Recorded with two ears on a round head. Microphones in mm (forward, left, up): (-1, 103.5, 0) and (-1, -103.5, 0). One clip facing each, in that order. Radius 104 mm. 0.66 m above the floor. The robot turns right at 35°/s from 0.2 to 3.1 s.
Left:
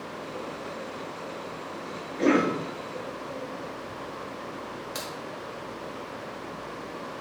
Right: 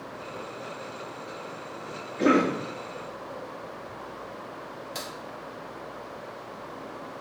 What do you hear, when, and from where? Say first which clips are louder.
2.2 s a cough: even; 20° right (ahead or behind), 0.6 m; by 2.6 s 15° right (ahead or behind), 0.6 m
5.0 s a crack: left 1 dB; 15° left (ahead or behind), 0.8 m